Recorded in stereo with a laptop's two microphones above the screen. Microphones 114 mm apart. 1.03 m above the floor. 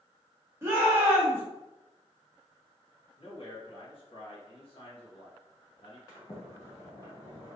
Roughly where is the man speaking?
Left.